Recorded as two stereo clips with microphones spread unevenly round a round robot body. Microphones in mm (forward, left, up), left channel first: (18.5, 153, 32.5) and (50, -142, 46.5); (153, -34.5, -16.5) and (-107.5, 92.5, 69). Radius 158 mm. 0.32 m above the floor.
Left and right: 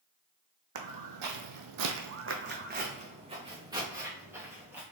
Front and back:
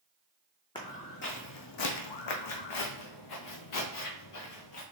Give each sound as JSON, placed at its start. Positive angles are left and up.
{"t": 0.8, "sound": "footsteps", "azimuth_deg": -105, "distance_m": 1.0}